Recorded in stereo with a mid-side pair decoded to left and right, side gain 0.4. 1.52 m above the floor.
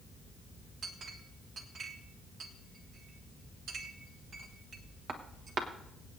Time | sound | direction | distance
0.8 | a clink | 60° right | 1.4 m